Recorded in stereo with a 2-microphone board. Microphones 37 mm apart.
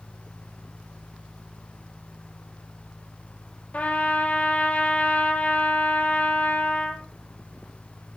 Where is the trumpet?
40° left (ahead or behind), 3 m.